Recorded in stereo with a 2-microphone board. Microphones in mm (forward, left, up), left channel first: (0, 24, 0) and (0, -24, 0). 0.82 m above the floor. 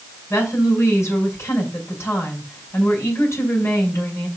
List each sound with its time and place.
0.3 s a woman speaking: 65° left (ahead or behind), 5 m